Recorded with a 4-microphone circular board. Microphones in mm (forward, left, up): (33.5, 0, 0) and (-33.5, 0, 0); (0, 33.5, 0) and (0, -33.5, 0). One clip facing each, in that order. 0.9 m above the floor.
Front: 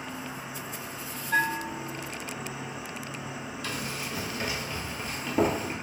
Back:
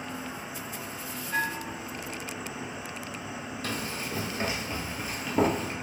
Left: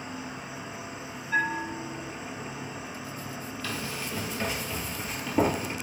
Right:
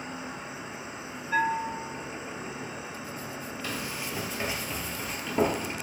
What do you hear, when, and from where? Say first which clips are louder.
0.0 s an insect: even, even; 85° right, 0.9 m
1.3 s a bell: front 4 dB, right 1 dB; 15° right, 1.4 m
3.6 s running footsteps: back 1 dB, left 1 dB; 155° right, 1.3 m; by 5.7 s 50° left, 0.9 m